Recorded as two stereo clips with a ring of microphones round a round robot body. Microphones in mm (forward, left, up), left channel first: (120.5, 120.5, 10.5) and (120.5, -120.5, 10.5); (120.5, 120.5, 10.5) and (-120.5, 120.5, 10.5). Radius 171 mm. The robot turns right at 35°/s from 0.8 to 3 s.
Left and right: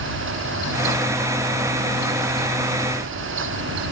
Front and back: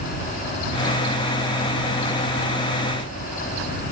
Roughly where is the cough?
I don't hear a cough.